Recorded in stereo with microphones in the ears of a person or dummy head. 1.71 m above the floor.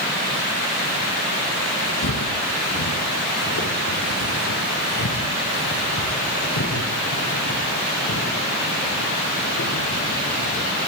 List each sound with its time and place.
2.0 s footsteps: 70° left (ahead or behind), 4.5 m; by 10.7 s 80° left, 16 m